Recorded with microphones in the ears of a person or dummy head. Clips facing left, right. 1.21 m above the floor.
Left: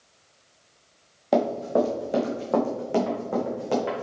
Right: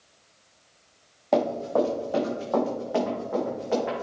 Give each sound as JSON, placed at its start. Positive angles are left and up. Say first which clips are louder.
{"t": 1.3, "sound": "running footsteps", "louder": "left 1 dB", "side_deg": 15, "distance_m": 3.0}